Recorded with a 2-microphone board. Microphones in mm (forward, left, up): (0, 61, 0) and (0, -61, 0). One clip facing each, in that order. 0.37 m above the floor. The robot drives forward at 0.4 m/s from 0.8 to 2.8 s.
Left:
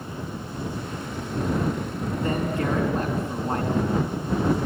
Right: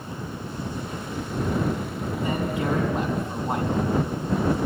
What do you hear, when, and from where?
2.2 s a man speaking: 15° right (ahead or behind), 4.5 m